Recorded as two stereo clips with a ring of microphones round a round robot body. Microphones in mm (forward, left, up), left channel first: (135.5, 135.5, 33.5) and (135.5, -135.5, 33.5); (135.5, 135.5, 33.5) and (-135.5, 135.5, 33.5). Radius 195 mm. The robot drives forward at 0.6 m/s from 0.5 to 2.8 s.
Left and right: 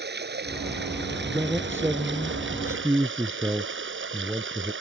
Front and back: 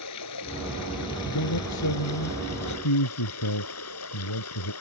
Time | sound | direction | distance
0.0 | running water | 40° right | ?
1.2 | a man speaking | 10° right | ?